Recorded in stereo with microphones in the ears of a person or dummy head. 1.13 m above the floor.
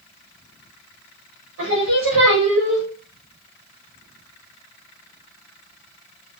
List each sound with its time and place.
1.6 s singing: 70° right (ahead or behind), 4 m